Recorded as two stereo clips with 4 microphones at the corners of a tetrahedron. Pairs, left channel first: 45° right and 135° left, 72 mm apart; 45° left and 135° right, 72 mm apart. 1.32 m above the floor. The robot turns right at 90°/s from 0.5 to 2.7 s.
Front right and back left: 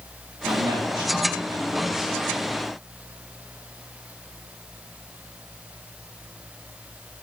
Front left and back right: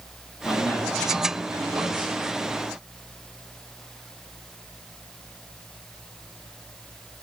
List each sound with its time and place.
0.5 s a man speaking: 85° left, 3 m; by 2.2 s 125° right, 3 m